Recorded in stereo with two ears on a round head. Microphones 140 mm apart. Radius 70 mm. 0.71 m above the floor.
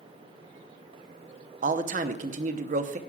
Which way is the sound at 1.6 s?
50° right (ahead or behind).